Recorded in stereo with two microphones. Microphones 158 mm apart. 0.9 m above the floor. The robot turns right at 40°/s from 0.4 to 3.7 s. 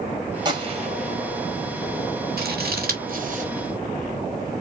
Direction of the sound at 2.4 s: 80° right.